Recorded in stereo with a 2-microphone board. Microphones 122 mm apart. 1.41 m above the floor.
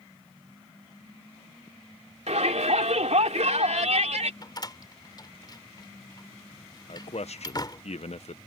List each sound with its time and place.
2.3 s a shout: 80° right
4.4 s a door slam: 40° left (ahead or behind)
6.9 s a man speaking: 70° left (ahead or behind)